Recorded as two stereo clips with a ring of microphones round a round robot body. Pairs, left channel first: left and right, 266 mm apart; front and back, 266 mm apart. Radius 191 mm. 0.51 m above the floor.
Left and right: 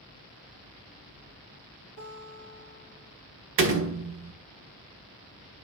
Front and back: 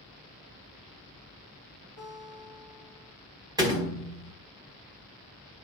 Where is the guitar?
70° right, 5.5 m.